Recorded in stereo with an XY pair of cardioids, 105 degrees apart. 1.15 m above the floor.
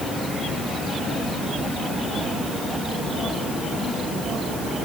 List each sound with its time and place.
Only background noise.